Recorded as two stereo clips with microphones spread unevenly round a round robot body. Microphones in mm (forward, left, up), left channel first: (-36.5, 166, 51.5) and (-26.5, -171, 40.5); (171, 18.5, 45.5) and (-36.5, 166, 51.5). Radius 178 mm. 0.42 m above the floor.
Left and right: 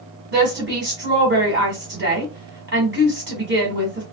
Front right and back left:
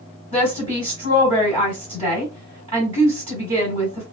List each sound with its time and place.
0.3 s a woman speaking: 140° right, 1.9 m